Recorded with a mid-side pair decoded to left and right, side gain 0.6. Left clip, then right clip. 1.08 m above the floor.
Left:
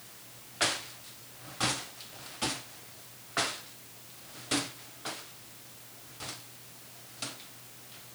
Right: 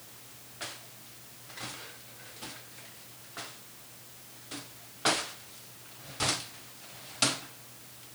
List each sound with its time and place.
Only background noise.